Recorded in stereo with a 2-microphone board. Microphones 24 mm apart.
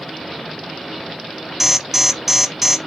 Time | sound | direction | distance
1.6 | an alarm | 10° right (ahead or behind) | 0.8 m